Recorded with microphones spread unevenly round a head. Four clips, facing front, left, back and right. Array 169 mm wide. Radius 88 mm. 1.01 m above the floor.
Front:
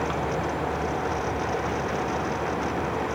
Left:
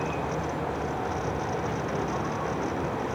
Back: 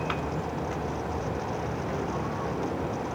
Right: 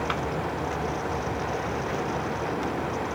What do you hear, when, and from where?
Only background noise.